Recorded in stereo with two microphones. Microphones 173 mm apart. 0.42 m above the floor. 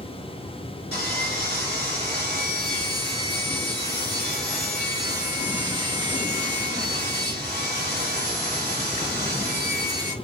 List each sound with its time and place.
0.9 s sawing: 65° left (ahead or behind), 3 m